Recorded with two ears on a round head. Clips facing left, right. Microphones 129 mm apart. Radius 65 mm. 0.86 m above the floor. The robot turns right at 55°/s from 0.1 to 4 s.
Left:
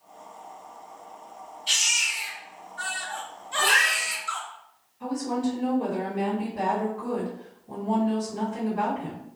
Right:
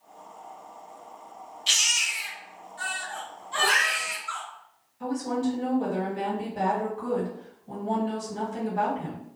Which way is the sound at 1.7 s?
85° right.